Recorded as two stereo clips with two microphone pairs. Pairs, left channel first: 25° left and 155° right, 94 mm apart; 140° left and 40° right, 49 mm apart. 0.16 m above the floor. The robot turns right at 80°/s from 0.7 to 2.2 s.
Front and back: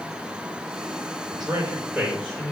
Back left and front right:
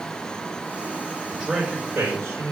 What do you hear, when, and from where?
1.3 s a man speaking: 130° right, 2.5 m; by 2.5 s 60° right, 2.5 m